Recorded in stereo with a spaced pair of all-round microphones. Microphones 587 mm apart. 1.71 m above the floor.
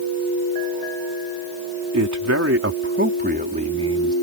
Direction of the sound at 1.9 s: 30° right (ahead or behind).